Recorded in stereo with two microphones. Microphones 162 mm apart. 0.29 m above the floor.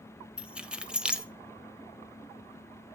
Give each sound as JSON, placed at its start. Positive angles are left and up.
{"t": 0.4, "sound": "keys jangling", "side_deg": -5, "distance_m": 0.5}